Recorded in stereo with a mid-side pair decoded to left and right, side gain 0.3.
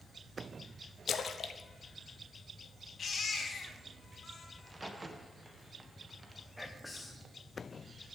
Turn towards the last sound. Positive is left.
turn(degrees=5)